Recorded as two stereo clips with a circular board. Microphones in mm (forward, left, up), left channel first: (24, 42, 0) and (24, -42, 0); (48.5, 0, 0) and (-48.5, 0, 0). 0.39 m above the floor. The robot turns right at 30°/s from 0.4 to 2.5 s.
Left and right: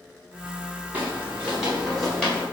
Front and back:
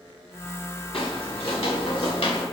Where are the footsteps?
25° right, 3 m; by 2.4 s 10° left, 4 m.